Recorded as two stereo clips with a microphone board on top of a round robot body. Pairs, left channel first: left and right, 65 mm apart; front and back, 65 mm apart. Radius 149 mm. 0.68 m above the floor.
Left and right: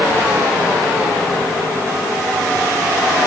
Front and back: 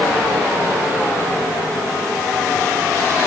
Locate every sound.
Only background noise.